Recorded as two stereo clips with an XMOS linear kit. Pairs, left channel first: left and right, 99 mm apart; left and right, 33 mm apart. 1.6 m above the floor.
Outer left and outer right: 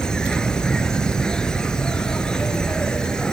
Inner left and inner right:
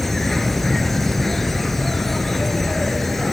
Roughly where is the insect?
Centre.